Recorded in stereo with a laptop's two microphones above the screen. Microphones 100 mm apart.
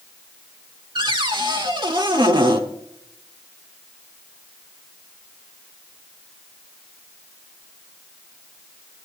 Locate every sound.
0.9 s a cupboard door: 50° right (ahead or behind), 1.3 m